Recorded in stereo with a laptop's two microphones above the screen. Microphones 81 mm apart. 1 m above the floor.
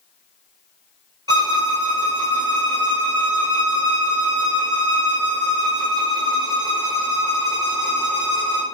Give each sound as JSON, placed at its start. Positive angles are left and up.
{"t": 1.3, "sound": "a violin", "side_deg": -60, "distance_m": 1.1}